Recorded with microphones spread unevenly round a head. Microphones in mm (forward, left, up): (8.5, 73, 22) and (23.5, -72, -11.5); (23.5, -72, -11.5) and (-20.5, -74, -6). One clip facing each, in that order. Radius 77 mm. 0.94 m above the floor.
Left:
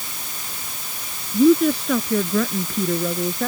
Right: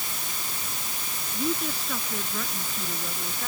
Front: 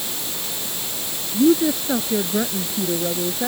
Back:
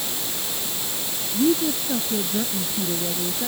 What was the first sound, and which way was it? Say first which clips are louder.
A woman speaking: left 15 dB, front 5 dB; 65° left.